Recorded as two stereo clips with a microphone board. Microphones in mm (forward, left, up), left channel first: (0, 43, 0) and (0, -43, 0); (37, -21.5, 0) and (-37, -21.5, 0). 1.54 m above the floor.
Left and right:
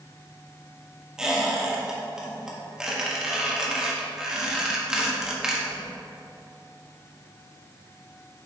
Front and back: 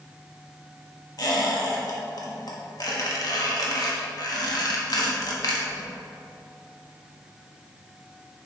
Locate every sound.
1.2 s a squeak: 10° right, 1.4 m